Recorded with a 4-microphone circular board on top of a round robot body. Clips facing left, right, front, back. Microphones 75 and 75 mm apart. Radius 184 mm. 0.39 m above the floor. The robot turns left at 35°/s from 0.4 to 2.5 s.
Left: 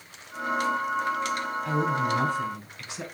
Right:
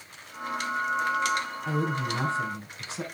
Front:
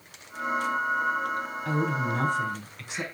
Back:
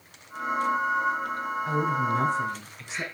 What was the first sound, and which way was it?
A woman speaking, 10° right.